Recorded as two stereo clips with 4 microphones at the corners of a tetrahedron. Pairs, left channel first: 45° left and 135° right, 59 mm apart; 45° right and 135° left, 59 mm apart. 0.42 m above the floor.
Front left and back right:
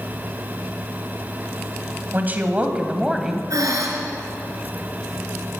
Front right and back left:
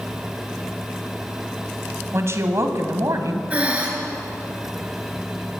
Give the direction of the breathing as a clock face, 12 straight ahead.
5 o'clock.